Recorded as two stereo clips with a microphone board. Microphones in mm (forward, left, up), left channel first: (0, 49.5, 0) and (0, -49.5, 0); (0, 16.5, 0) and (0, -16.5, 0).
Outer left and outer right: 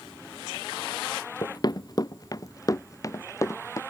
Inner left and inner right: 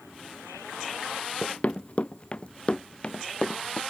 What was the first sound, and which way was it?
Running footsteps, 45° left (ahead or behind).